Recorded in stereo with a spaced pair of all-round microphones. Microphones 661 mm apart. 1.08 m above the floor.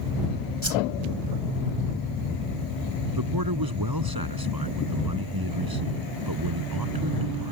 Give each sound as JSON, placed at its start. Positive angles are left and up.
{"t": 0.6, "sound": "a whoosh", "side_deg": -20}
{"t": 3.1, "sound": "a man speaking", "side_deg": -30}